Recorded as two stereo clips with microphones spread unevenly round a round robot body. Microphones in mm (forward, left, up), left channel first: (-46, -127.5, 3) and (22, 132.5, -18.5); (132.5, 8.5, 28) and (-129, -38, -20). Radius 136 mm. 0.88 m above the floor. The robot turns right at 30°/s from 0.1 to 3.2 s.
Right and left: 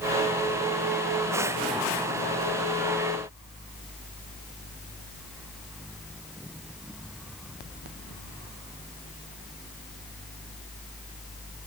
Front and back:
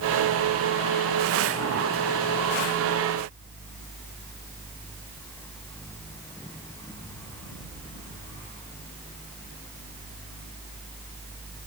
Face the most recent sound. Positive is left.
No sound to turn to.